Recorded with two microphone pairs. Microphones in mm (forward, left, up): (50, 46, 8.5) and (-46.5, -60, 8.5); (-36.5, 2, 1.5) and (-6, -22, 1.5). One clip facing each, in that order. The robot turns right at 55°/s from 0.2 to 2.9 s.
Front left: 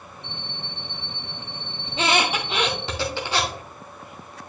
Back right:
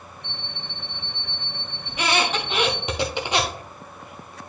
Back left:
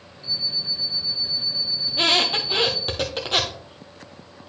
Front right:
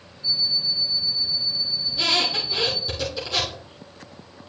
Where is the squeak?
100° left, 1.5 m; by 3.6 s 160° left, 1.5 m.